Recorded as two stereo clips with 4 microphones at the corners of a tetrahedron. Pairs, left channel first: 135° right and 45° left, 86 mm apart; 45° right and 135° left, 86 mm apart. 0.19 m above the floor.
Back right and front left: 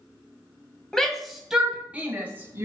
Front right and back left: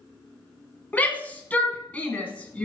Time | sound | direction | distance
0.9 | a shout | 65° right | 1.6 m